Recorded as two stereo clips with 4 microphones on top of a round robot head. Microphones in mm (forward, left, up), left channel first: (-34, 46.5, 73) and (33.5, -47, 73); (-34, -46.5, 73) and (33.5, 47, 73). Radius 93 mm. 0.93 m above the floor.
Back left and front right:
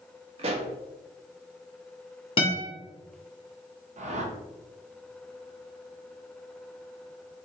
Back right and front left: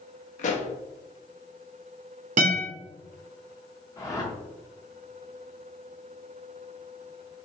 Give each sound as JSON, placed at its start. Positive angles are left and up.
{"t": 0.4, "sound": "a pop", "azimuth_deg": -95, "distance_m": 0.6}
{"t": 2.4, "sound": "a guitar", "azimuth_deg": 80, "distance_m": 1.3}
{"t": 4.0, "sound": "a whoosh", "azimuth_deg": -65, "distance_m": 1.0}